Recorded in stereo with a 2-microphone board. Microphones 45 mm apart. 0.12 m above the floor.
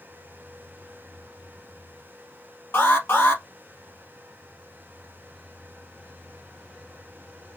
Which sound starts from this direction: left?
An alarm, at 2.7 s.